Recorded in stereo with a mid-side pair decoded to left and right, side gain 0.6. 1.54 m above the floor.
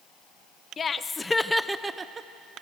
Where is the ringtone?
No ringtone in this recording.